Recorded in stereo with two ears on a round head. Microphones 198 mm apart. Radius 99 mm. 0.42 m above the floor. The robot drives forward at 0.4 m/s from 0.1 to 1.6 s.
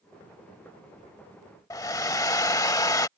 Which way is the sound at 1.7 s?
15° left (ahead or behind).